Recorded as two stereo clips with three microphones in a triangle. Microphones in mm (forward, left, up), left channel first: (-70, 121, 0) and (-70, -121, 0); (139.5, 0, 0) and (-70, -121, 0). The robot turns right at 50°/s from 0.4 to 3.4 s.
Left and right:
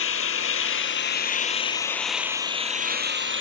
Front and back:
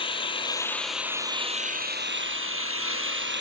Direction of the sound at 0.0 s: 95° left.